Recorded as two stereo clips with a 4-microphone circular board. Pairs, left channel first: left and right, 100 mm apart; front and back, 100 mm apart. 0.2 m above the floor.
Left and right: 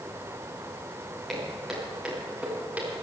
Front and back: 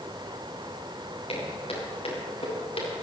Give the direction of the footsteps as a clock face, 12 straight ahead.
12 o'clock.